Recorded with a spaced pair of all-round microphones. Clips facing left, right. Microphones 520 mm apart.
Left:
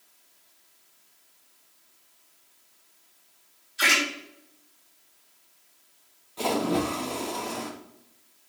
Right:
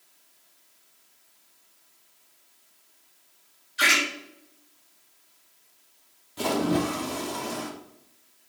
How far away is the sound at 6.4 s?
About 1.0 m.